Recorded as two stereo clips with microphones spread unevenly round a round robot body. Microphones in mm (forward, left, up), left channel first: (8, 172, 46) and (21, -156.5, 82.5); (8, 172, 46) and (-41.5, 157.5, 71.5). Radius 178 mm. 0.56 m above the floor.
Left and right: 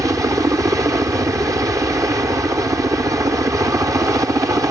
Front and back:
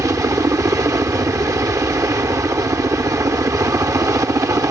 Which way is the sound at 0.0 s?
170° right.